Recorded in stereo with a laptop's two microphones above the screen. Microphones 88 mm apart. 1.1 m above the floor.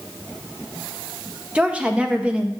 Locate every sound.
1.6 s a woman speaking: 15° right (ahead or behind), 0.5 m